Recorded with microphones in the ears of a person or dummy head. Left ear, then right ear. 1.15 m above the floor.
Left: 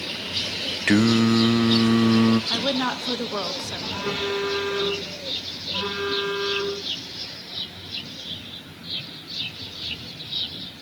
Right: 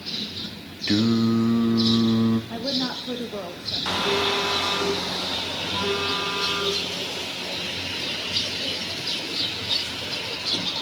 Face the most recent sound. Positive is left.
turn(degrees=0)  # may be behind; listen again after turning